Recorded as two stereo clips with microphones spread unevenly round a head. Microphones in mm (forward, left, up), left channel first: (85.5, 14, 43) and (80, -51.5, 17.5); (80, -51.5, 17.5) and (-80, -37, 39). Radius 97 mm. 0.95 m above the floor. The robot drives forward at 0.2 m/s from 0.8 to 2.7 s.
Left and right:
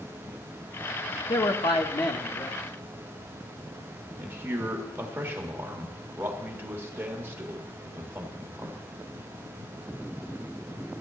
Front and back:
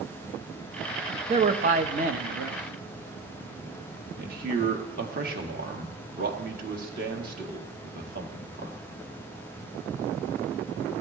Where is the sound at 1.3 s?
125° left, 0.7 m; by 2.6 s 140° left, 0.9 m.